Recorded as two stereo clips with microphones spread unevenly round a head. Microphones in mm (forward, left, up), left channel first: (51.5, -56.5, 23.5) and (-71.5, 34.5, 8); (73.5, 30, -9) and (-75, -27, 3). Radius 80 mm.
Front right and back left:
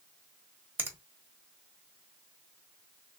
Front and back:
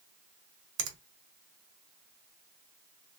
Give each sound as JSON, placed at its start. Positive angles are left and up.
{"t": 0.8, "sound": "a finger snap", "azimuth_deg": -135, "distance_m": 1.3}